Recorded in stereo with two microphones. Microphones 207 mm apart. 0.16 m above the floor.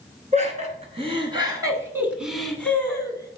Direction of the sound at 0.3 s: 35° right (ahead or behind).